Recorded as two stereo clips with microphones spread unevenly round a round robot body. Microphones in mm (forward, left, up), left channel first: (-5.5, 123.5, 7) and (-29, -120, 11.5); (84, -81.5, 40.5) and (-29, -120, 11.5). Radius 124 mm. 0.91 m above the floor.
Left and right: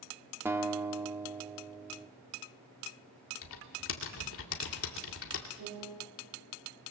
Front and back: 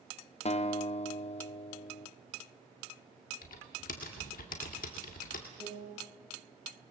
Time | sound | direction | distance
0.5 | a guitar | 15° right | 1.1 m
3.4 | typing on a keyboard | 45° left | 2 m
5.6 | a piano | 140° right | 9 m